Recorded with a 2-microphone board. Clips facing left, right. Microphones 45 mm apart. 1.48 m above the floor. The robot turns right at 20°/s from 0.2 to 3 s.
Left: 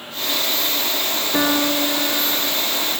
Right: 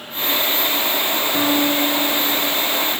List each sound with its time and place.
1.3 s a piano: 70° left (ahead or behind), 1.2 m; by 2.5 s 80° left, 1.2 m